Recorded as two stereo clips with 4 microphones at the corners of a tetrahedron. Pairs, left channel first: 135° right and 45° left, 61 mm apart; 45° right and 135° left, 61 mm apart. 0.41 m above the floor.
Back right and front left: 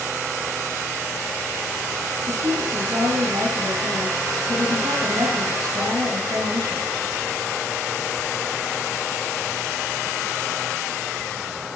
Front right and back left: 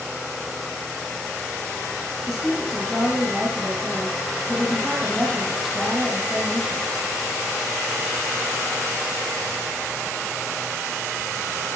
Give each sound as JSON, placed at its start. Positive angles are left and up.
{"t": 2.3, "sound": "a woman speaking", "azimuth_deg": 40, "distance_m": 7.5}